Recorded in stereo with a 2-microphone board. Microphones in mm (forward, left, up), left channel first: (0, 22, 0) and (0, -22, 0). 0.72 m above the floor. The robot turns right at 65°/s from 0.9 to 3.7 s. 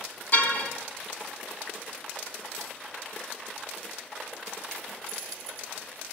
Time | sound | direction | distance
0.3 | a car horn | 50° left (ahead or behind) | 3 m